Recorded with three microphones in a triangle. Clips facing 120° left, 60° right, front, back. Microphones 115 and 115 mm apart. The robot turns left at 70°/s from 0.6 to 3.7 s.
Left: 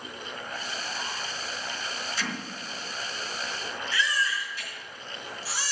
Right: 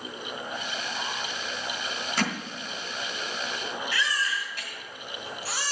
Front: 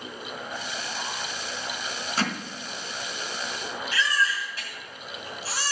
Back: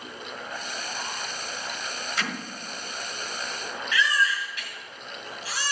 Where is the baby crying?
50° right, 2.5 m.